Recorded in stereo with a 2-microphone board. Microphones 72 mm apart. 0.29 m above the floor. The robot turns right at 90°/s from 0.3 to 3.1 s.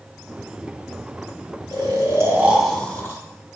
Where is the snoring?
90° right, 3 m; by 3.2 s 40° left, 3 m.